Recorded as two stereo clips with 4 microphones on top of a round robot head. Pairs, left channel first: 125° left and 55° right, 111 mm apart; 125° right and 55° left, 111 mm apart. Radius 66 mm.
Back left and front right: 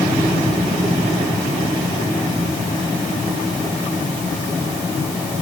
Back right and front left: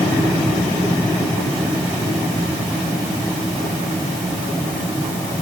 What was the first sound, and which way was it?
Only background noise.